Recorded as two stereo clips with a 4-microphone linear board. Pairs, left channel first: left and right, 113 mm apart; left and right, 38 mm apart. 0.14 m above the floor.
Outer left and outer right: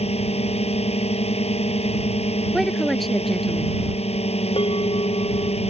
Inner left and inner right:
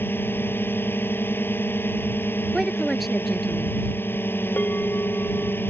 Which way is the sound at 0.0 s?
65° left (ahead or behind).